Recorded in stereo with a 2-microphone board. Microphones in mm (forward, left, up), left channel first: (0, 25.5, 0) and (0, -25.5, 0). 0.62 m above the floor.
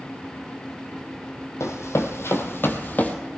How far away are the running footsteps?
About 1.7 m.